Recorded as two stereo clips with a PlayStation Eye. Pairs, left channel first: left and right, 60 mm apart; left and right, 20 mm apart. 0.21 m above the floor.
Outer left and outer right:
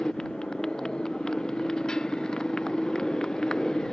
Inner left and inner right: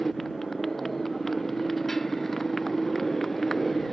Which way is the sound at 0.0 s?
10° left (ahead or behind).